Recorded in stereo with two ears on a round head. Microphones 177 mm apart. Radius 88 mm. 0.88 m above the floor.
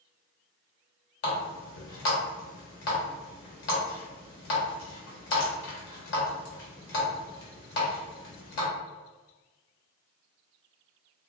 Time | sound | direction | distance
1.2 | a running tap | 60° left (ahead or behind) | 1.0 m